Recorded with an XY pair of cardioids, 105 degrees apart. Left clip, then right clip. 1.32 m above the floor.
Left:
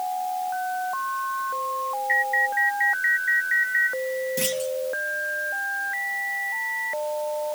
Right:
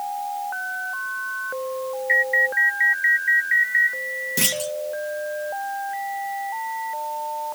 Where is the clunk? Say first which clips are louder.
Right 2 dB; 50° right.